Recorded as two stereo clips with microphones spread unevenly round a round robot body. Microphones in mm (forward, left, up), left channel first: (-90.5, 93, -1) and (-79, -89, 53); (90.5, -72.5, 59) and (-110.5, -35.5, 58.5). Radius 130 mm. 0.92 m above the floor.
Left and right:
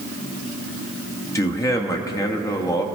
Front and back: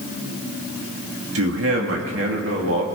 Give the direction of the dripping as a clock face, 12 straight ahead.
I don't hear dripping.